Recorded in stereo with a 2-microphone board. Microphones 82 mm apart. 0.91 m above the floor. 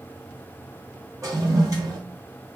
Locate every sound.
1.2 s a toilet flushing: 40° right (ahead or behind), 1.7 m